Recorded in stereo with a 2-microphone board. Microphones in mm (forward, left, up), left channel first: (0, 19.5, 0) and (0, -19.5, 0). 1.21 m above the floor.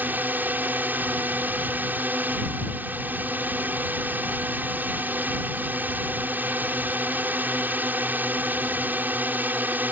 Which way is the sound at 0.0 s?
50° right (ahead or behind).